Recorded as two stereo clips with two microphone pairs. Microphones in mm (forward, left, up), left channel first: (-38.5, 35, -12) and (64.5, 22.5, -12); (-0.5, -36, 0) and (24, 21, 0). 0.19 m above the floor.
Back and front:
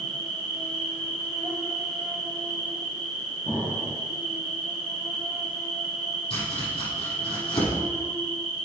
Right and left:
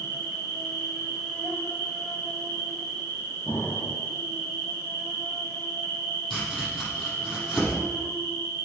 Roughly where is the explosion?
Right.